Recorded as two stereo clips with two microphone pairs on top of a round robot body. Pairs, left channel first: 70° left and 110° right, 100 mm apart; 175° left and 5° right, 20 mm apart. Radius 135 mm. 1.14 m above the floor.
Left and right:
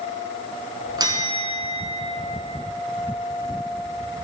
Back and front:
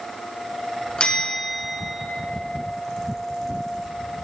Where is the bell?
160° right, 1.2 m.